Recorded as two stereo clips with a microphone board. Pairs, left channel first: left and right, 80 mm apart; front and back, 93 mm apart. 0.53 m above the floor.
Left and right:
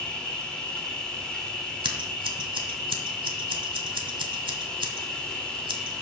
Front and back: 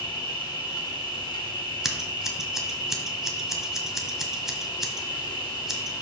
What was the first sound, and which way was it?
An insect, 15° left.